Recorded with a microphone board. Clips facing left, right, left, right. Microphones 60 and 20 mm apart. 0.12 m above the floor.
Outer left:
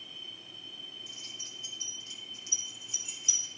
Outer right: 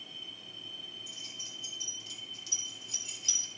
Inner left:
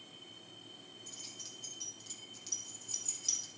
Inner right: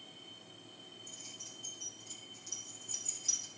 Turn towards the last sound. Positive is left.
turn(degrees=10)  # may be behind; listen again after turning